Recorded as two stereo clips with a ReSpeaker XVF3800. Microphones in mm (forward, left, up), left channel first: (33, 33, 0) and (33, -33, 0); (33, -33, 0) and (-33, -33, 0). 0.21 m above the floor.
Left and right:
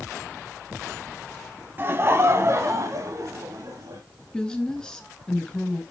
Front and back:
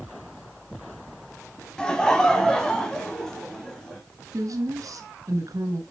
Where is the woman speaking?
165° left, 2 m.